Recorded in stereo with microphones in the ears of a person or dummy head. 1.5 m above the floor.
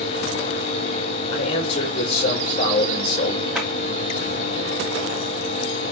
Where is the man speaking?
35° left (ahead or behind), 4.5 m.